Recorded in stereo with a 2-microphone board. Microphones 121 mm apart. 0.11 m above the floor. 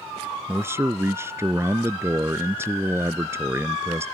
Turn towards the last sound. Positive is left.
turn(degrees=-20)  # may be behind; listen again after turning